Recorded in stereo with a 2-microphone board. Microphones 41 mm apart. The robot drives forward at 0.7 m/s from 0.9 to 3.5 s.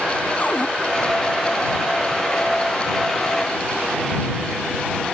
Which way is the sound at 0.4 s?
45° left (ahead or behind).